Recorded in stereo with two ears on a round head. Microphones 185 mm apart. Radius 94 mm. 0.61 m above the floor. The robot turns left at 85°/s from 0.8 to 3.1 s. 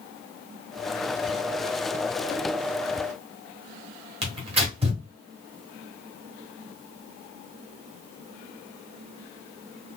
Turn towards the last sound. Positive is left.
turn(degrees=-30)  # may be behind; listen again after turning